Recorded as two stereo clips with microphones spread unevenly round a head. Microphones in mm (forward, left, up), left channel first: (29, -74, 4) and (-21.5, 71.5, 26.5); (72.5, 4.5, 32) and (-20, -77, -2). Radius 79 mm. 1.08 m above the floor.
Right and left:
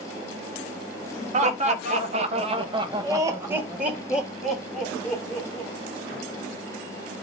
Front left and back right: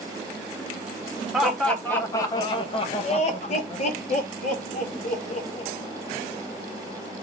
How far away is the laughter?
About 1.1 m.